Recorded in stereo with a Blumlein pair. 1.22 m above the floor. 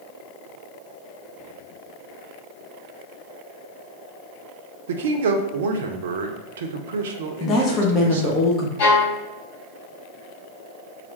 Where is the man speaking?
60° right, 0.6 m.